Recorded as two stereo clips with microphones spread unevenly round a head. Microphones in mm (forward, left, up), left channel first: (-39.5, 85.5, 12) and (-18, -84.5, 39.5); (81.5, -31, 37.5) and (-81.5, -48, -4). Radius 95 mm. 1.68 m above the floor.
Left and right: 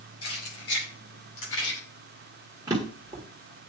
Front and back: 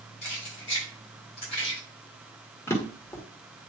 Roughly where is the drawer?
Ahead right.